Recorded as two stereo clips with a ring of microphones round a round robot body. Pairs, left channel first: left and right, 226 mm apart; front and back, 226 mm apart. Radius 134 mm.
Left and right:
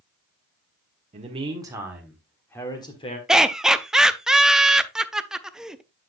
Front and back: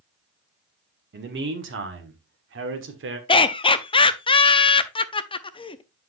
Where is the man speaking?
150° right, 1.4 m; by 3.2 s 150° left, 1.5 m.